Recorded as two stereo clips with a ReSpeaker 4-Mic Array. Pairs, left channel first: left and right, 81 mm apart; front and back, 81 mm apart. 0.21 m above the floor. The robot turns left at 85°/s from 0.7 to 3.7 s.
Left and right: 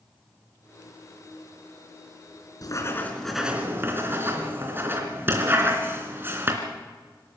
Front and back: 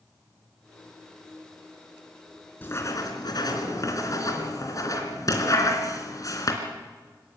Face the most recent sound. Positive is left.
turn(degrees=-30)